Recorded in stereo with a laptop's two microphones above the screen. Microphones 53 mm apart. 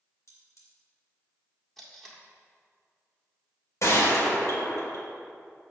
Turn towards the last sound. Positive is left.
turn(degrees=65)  # may be behind; listen again after turning